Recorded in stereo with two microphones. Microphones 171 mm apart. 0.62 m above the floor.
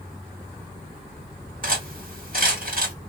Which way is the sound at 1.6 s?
55° right (ahead or behind).